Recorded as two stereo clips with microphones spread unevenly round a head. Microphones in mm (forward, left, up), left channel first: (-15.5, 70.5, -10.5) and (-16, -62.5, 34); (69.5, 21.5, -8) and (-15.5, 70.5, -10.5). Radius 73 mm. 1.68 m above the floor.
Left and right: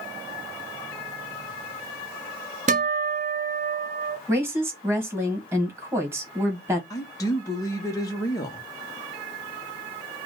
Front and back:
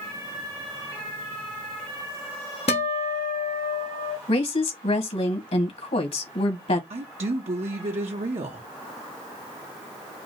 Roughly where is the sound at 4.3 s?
Ahead.